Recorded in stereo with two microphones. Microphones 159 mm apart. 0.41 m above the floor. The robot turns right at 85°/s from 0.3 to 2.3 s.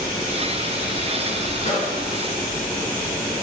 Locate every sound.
1.6 s a microwave: 55° left (ahead or behind), 4.5 m; by 1.9 s 30° left (ahead or behind), 4.5 m